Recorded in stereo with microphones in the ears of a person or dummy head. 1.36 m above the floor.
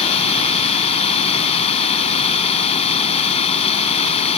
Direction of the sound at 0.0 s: 40° left (ahead or behind).